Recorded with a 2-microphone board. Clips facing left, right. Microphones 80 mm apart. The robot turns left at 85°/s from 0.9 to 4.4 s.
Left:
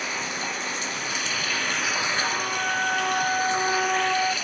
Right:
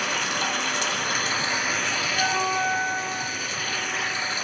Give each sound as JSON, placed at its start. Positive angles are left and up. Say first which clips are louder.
{"t": 0.0, "sound": "running water", "louder": "right 4 dB", "azimuth_deg": -105, "distance_m": 1.3}
{"t": 2.1, "sound": "a flute", "louder": "right 3 dB", "azimuth_deg": -125, "distance_m": 0.6}